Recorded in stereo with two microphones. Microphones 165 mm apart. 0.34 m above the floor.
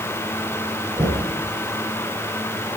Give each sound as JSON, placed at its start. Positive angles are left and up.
{"t": 0.9, "sound": "knocking", "side_deg": -30, "distance_m": 7.5}